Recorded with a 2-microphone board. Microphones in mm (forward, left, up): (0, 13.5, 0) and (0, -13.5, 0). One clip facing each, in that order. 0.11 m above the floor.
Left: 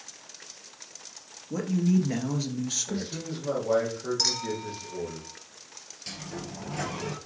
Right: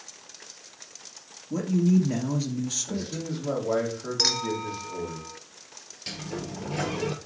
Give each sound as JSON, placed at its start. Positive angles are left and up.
{"t": 1.5, "sound": "a man speaking", "side_deg": 20, "distance_m": 1.5}
{"t": 2.9, "sound": "a man speaking", "side_deg": 10, "distance_m": 3.5}
{"t": 4.2, "sound": "a clink", "side_deg": -25, "distance_m": 0.7}
{"t": 6.1, "sound": "a sliding door", "side_deg": -20, "distance_m": 1.3}